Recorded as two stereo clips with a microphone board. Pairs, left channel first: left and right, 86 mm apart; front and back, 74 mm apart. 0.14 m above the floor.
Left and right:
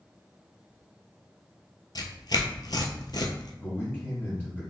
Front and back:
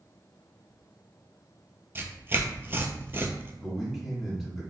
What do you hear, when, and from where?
1.9 s tearing paper: 125° left, 0.5 m
3.6 s a man speaking: 95° left, 1.7 m